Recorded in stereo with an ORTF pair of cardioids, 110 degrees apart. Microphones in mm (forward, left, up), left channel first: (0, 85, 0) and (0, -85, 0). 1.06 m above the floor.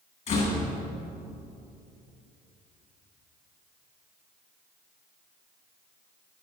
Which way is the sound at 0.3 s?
45° left.